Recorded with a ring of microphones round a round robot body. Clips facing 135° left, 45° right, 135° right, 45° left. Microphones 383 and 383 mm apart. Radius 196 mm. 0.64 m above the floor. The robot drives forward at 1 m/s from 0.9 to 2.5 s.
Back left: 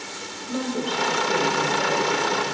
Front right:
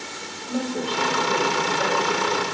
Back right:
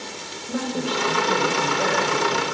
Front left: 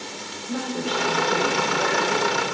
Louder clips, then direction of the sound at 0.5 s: Even, back right 2 dB; 140° right.